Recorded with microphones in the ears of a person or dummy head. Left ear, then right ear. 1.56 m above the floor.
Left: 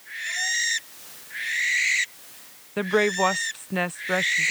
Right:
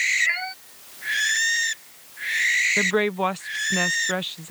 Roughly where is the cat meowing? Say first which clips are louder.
Right 4 dB; right.